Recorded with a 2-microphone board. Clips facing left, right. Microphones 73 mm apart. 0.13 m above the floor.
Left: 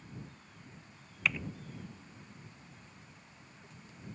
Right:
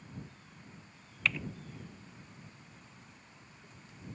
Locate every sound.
1.2 s typing on a keyboard: 5° left (ahead or behind)